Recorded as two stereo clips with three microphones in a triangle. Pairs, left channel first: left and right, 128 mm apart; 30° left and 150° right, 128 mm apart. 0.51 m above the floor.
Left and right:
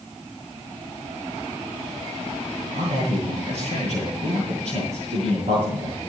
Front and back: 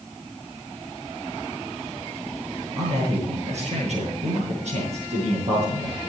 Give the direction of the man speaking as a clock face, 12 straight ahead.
4 o'clock.